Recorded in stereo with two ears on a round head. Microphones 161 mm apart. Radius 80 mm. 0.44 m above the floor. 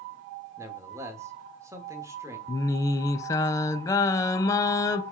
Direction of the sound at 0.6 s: 20° right (ahead or behind).